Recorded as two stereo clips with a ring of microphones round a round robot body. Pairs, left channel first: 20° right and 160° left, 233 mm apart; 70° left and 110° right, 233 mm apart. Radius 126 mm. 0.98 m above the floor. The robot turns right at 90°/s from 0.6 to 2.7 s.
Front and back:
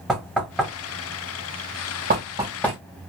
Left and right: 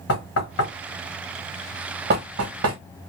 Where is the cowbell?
No cowbell in this recording.